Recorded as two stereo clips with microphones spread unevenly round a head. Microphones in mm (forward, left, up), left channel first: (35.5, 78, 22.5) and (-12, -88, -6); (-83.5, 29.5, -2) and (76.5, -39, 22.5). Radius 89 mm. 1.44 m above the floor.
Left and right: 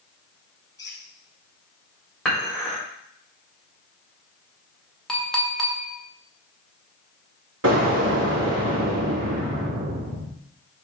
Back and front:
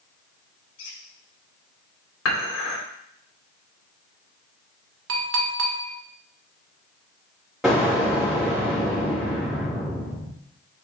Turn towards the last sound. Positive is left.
turn(degrees=-110)